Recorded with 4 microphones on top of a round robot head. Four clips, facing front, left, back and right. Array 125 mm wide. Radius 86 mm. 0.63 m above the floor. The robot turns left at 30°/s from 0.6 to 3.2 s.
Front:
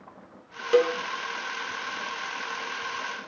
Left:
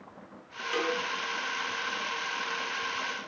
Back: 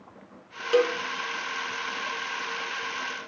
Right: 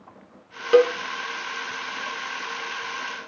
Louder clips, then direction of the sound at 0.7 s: Right 14 dB, front 1 dB; 75° right.